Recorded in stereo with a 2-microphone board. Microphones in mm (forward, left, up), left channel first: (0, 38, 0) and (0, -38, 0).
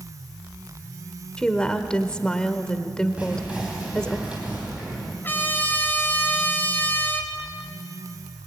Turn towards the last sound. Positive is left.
turn(degrees=30)  # may be behind; listen again after turning